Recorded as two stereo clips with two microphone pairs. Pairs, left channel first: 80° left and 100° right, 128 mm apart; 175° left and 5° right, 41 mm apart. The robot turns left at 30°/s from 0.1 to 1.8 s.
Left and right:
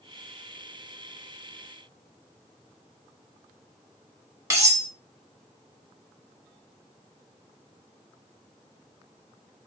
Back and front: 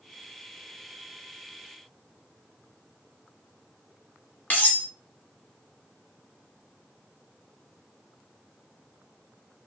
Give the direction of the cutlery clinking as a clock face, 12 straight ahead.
5 o'clock.